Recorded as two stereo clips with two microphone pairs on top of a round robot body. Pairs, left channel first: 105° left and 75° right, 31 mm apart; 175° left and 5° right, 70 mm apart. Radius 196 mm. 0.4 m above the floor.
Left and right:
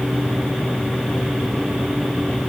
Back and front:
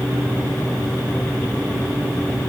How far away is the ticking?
I don't hear ticking.